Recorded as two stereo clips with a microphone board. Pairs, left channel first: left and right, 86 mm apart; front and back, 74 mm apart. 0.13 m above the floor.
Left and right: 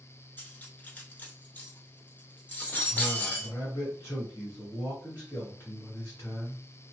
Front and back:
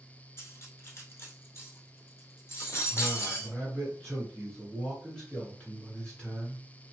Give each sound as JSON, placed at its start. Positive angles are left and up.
{"t": 0.4, "sound": "cutlery clinking", "azimuth_deg": 35, "distance_m": 0.9}
{"t": 2.9, "sound": "a man speaking", "azimuth_deg": 70, "distance_m": 1.5}